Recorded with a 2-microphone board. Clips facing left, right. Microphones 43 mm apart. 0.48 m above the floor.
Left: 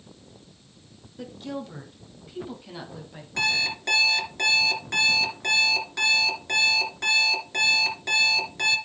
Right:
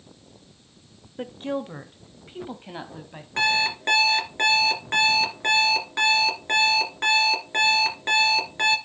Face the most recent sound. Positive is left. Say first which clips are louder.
# right 3 dB
turn(degrees=-30)  # may be behind; listen again after turning